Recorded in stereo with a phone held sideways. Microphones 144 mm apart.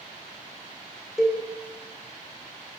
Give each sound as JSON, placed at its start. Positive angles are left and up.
{"t": 1.2, "sound": "a cowbell", "side_deg": -5, "distance_m": 0.6}